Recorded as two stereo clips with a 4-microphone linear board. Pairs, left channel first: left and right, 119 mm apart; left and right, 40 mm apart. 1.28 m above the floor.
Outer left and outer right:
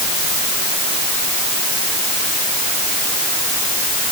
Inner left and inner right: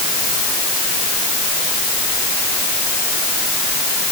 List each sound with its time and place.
Only background noise.